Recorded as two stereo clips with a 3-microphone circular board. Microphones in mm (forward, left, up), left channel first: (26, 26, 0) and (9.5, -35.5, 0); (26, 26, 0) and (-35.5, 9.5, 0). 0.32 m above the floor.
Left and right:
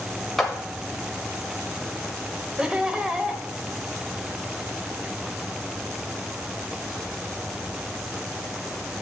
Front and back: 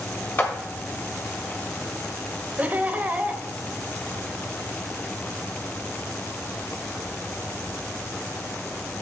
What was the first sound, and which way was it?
A clap, 10° right.